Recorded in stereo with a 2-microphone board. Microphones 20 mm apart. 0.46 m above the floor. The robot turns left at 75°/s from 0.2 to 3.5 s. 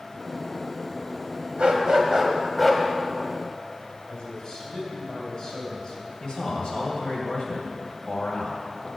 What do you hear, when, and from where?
1.6 s a dog barking: 110° right, 1.1 m; by 2.8 s 155° left, 1.1 m
4.1 s a man speaking: 45° left (ahead or behind), 2.5 m
6.2 s a man speaking: 65° left (ahead or behind), 2 m